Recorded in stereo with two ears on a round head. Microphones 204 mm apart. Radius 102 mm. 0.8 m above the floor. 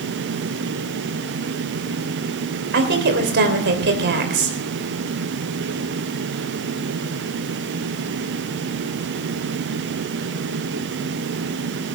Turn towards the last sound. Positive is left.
turn(degrees=-50)  # may be behind; listen again after turning